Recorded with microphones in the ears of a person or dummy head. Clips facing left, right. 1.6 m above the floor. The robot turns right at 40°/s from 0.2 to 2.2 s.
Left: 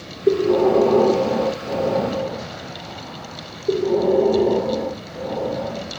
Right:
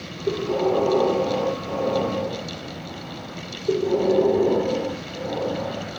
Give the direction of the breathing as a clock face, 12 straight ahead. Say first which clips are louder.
Left 6 dB; 9 o'clock.